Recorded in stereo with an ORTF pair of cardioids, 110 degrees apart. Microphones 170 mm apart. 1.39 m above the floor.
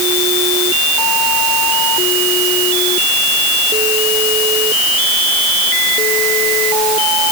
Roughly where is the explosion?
No explosion in this recording.